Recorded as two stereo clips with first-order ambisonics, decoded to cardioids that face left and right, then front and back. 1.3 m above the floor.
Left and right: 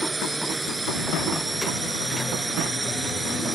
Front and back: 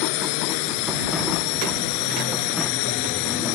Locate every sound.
0.0 s a drone: 10° right